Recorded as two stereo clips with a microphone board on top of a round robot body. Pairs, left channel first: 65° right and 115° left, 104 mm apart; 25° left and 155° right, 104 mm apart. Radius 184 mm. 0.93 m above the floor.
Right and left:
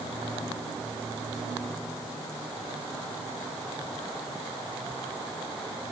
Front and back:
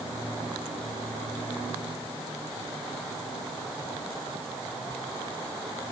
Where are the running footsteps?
No running footsteps in this recording.